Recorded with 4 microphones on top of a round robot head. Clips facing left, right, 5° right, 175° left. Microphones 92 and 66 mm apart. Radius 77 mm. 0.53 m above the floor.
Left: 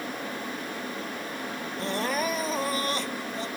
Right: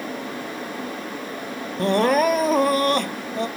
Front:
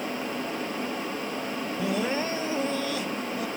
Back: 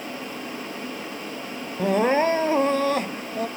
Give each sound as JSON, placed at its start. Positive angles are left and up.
{"t": 1.8, "sound": "crying", "azimuth_deg": -125}